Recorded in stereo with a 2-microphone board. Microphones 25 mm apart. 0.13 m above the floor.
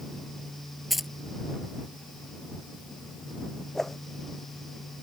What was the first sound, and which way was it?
Keys jangling, centre (ahead or behind).